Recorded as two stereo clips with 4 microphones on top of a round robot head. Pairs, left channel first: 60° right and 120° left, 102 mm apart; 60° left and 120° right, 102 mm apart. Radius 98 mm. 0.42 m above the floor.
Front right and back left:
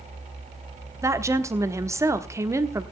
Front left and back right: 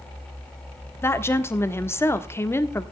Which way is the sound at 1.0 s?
95° left.